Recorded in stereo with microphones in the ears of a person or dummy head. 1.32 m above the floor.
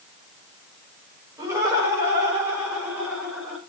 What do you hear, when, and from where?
1.4 s laughter: 20° right (ahead or behind), 5.5 m; by 3.6 s 5° right (ahead or behind), 6.5 m